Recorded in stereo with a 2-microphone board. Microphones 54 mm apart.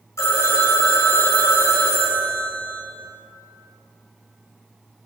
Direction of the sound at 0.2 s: 70° left (ahead or behind).